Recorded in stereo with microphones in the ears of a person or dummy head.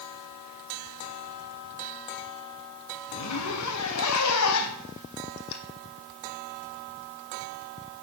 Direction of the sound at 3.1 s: 80° left.